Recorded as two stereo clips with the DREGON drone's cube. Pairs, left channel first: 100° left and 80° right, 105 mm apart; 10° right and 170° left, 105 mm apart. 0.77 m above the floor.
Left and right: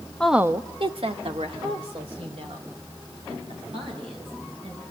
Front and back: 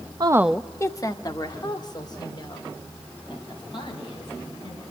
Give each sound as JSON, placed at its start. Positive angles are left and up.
{"t": 0.2, "sound": "a woman speaking", "azimuth_deg": 175, "distance_m": 0.5}